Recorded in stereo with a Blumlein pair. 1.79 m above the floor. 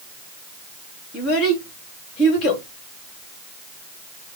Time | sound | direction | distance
1.1 | a child speaking | 30° left | 2 m